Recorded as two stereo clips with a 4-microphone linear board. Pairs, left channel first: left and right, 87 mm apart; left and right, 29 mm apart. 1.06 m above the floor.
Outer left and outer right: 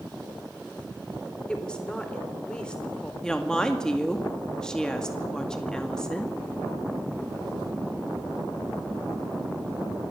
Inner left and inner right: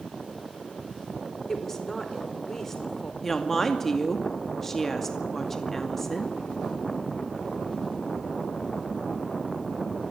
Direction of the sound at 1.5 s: 10° left (ahead or behind).